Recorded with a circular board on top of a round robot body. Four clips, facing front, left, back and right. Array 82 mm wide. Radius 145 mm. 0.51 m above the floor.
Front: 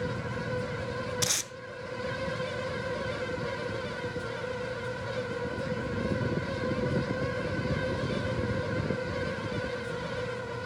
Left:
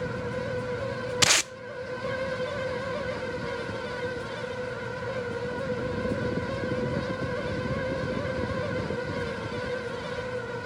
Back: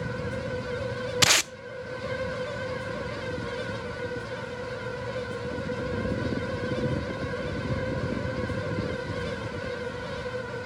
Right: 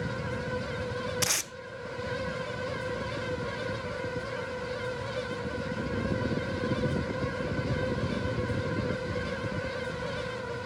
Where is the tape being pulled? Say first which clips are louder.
Left 7 dB, back 10 dB; 145° left, 0.5 m.